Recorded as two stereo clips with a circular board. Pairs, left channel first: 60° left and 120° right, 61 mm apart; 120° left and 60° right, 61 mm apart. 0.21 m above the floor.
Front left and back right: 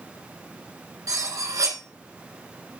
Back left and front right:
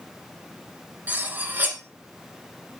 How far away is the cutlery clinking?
About 1.6 m.